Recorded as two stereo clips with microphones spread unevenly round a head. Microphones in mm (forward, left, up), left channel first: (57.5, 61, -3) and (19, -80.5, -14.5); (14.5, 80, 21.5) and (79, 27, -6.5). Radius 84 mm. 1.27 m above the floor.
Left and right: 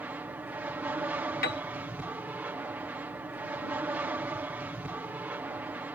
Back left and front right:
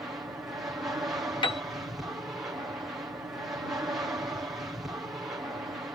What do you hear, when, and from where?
0.0 s an aircraft: 45° right
1.4 s a piano: 115° left